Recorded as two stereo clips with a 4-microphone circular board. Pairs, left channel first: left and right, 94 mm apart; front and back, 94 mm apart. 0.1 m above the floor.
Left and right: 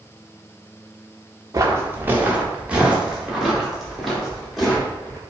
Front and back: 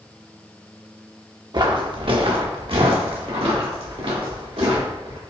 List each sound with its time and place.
1.5 s footsteps: 145° right, 0.7 m; by 5.2 s 175° left, 2.5 m